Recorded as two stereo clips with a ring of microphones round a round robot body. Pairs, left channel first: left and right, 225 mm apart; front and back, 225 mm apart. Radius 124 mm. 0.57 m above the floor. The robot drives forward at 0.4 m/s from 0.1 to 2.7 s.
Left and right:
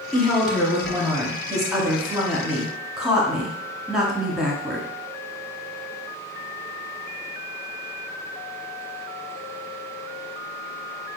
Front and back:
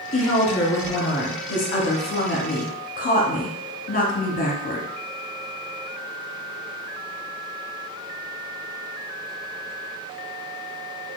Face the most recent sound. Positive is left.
turn(degrees=-5)